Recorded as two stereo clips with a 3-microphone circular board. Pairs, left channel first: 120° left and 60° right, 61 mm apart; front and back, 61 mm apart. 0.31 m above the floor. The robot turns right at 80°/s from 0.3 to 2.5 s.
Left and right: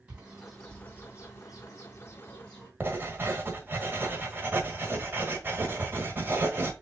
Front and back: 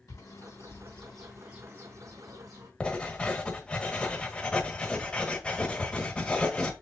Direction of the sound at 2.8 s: 60° right.